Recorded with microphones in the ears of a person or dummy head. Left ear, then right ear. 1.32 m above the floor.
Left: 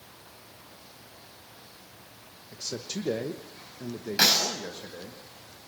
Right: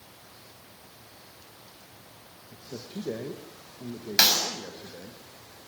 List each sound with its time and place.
2.5 s a man speaking: 65° left (ahead or behind), 1.5 m; by 5.2 s 25° left (ahead or behind), 2 m
4.2 s a clap: 30° right (ahead or behind), 7.5 m